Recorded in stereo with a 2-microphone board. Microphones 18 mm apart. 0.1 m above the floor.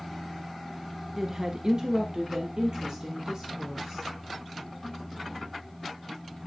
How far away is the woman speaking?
About 1.1 m.